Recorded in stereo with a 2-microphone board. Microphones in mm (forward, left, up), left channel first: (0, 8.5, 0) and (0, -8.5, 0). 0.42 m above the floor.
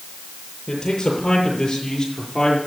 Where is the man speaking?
35° left (ahead or behind), 8 m; by 2.6 s 20° left (ahead or behind), 8 m.